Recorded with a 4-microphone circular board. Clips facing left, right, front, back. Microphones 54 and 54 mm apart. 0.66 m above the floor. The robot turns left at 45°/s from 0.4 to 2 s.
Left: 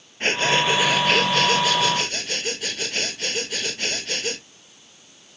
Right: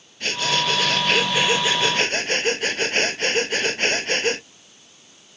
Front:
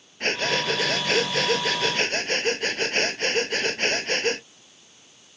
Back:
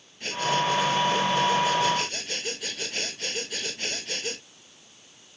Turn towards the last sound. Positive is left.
turn(degrees=-40)